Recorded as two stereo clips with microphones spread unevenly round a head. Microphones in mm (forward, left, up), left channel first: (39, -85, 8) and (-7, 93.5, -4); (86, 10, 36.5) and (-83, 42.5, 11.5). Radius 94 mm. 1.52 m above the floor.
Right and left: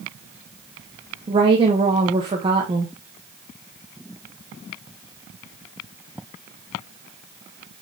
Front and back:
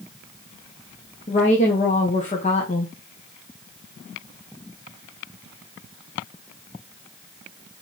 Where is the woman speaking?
40° left, 1.4 m.